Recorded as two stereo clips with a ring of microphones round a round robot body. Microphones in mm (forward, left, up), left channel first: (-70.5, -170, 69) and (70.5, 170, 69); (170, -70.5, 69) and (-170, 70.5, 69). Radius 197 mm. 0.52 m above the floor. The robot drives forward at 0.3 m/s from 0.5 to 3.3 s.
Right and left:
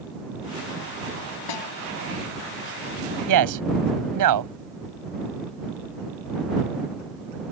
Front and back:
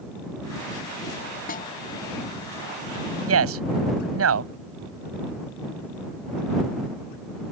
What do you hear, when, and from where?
1.5 s a snare drum: 90° right; by 1.7 s 95° right
3.3 s a man speaking: 105° left